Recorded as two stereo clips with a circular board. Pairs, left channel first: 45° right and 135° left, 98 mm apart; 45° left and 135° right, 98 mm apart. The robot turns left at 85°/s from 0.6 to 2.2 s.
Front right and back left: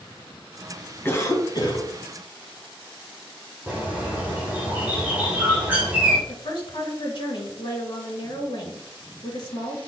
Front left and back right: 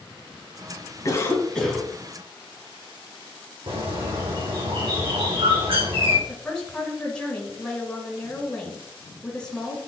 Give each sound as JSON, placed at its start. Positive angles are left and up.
{"t": 1.1, "sound": "a cough", "azimuth_deg": 10, "distance_m": 2.0}
{"t": 3.7, "sound": "a bird", "azimuth_deg": -155, "distance_m": 4.0}
{"t": 6.3, "sound": "a woman speaking", "azimuth_deg": -35, "distance_m": 2.5}